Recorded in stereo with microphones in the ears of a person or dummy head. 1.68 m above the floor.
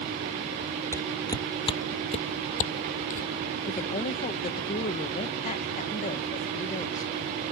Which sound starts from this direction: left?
A woman speaking, at 3.7 s.